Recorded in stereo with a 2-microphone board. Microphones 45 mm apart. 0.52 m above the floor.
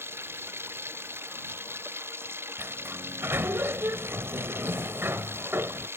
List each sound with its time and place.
0.0 s running water: 60° right (ahead or behind)
2.6 s a sliding door: 60° right (ahead or behind)